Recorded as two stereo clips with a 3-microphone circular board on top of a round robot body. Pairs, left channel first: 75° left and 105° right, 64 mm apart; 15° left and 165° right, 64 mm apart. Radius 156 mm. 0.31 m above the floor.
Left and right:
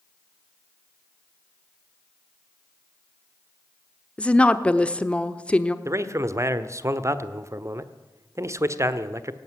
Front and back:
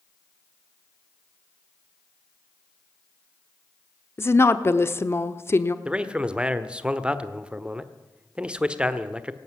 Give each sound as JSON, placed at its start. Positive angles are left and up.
{"t": 4.2, "sound": "a woman speaking", "azimuth_deg": 15, "distance_m": 1.2}
{"t": 5.8, "sound": "a man speaking", "azimuth_deg": -95, "distance_m": 1.4}